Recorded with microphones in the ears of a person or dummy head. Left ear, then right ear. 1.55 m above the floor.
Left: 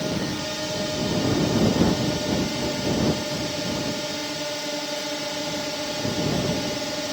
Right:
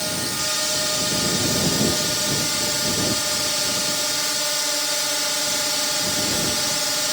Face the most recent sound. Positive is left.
turn(degrees=-60)  # may be behind; listen again after turning